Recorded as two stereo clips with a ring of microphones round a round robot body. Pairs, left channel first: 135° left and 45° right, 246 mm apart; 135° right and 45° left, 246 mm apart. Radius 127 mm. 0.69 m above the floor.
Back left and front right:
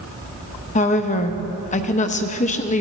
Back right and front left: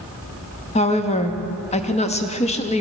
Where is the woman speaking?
175° left, 0.7 m.